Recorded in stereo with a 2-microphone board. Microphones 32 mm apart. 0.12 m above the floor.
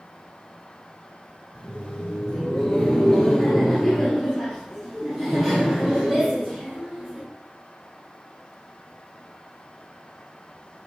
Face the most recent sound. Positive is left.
turn(degrees=-10)  # may be behind; listen again after turning